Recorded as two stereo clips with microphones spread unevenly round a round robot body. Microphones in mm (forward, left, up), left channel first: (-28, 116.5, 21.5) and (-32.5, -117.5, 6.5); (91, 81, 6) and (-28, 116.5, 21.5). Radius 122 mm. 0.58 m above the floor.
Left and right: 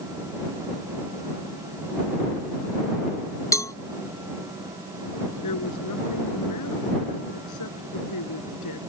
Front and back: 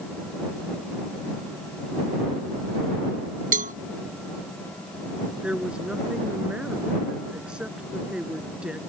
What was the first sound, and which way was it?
A cowbell, 165° left.